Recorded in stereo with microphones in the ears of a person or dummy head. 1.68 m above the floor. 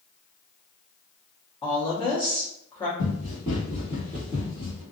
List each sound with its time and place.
1.6 s a woman speaking: 20° left (ahead or behind), 0.9 m
3.0 s running footsteps: 35° left (ahead or behind), 1.9 m; by 4.8 s centre (ahead or behind), 1.6 m